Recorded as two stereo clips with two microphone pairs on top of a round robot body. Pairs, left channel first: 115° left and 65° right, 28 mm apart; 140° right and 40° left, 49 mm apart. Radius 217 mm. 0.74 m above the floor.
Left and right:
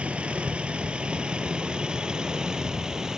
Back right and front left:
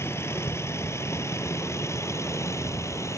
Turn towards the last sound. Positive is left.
turn(degrees=-135)